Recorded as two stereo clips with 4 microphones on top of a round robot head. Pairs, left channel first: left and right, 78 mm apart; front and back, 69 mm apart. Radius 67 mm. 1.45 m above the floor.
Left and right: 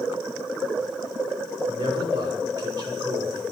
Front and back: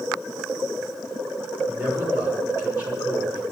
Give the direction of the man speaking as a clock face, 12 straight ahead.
4 o'clock.